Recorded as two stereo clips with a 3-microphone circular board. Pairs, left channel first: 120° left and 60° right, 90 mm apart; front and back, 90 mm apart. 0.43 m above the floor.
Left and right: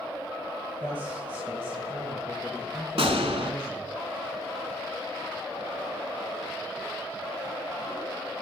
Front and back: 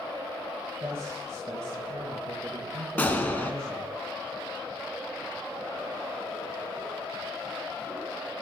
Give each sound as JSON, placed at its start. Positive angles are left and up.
{"t": 0.8, "sound": "a man speaking", "azimuth_deg": -125, "distance_m": 2.0}
{"t": 3.0, "sound": "a gunshot", "azimuth_deg": -75, "distance_m": 1.4}